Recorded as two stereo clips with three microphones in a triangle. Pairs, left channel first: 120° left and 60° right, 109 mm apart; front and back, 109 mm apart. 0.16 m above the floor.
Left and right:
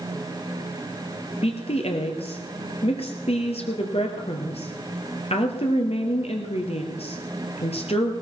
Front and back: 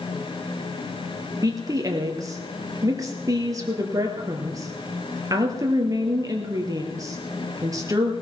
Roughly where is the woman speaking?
Behind left.